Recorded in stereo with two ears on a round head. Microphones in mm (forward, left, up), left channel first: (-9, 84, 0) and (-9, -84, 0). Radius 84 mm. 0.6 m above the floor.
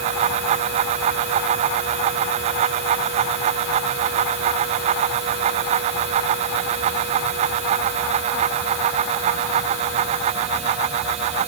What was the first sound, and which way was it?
Only background noise.